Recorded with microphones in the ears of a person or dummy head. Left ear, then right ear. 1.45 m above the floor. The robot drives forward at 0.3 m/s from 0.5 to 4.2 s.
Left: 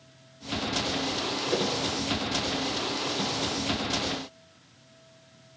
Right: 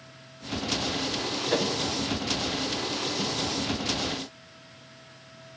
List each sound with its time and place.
1.5 s a whoosh: 35° right (ahead or behind), 1.7 m; by 1.7 s 40° right (ahead or behind), 1.7 m